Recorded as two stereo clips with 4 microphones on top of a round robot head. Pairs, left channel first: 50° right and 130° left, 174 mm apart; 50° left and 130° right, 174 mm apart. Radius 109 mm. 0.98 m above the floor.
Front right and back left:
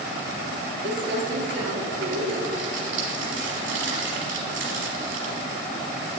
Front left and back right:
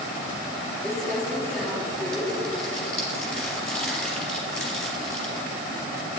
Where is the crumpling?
140° left, 3.5 m.